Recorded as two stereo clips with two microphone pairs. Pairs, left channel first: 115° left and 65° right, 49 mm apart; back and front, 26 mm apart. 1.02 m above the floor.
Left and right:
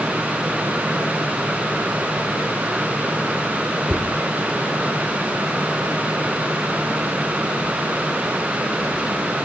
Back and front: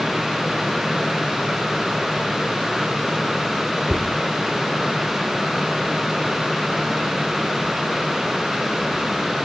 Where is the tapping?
15° right, 3.5 m.